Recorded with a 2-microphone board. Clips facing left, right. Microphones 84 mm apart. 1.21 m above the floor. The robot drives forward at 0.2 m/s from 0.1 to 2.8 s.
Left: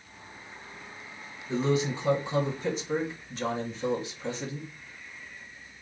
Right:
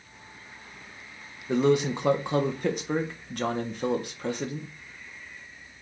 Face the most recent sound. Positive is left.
turn(degrees=-55)  # may be behind; listen again after turning